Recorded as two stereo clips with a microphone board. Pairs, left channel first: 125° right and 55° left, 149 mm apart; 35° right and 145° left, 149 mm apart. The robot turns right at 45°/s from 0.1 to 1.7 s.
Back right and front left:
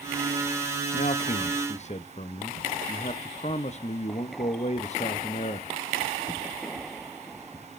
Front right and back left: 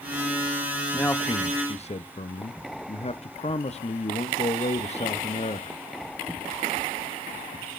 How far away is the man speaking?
About 0.5 m.